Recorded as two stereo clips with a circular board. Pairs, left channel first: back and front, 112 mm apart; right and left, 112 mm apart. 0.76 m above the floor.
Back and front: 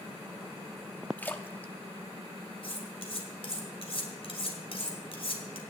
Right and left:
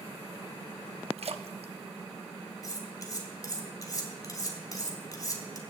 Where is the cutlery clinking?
150° right, 2 m.